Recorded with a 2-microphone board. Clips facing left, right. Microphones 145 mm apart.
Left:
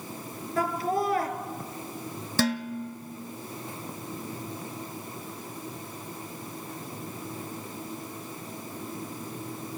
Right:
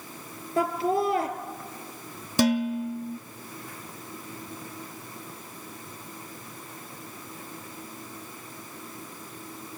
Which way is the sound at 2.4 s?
15° right (ahead or behind).